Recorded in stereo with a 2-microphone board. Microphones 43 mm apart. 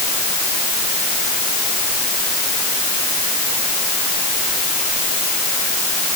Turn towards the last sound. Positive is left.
No sound to turn to.